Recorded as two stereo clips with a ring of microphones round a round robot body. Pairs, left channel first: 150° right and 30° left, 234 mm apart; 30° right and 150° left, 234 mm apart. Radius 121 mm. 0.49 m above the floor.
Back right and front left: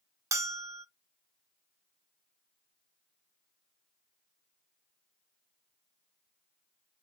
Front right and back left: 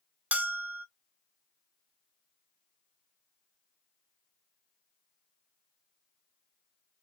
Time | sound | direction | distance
0.3 | a bell | 80° left | 0.7 m